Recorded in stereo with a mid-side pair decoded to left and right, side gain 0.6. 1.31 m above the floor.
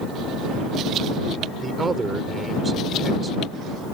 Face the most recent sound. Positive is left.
turn(degrees=-25)